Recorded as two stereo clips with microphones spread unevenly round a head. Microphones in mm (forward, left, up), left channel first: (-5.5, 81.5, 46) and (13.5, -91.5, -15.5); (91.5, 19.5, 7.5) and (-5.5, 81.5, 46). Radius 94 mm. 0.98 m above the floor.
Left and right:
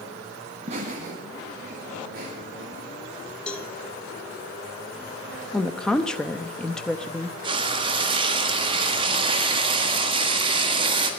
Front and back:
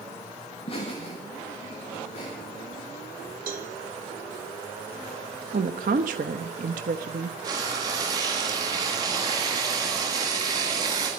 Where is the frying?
140° right, 1.5 m.